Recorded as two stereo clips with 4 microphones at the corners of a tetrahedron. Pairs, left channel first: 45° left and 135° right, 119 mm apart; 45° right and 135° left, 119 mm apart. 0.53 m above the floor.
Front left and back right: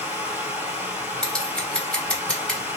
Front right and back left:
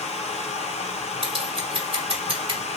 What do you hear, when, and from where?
0.0 s running water: 60° right, 1.4 m
1.2 s scissors: 125° left, 1.1 m